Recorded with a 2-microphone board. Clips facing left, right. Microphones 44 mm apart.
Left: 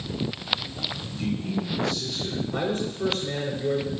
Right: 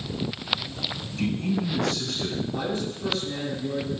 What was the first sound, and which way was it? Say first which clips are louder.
A man speaking: right 3 dB; 65° right (ahead or behind).